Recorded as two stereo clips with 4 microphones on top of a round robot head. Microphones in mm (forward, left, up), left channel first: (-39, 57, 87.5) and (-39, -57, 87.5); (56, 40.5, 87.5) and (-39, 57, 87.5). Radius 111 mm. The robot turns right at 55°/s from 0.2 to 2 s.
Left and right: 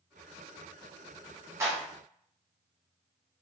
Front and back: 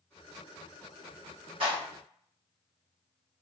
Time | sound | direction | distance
1.6 | a clap | 155° right | 1.3 m